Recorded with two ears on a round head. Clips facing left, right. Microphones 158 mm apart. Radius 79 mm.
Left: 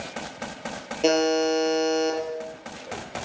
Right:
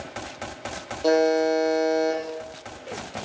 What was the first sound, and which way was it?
A buzzer, 85° left.